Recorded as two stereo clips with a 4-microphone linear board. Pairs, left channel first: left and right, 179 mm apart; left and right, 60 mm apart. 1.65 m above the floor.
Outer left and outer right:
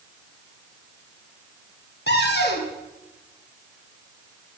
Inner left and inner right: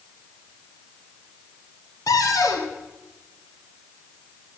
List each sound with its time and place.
2.1 s a cupboard door: 70° left (ahead or behind), 1.7 m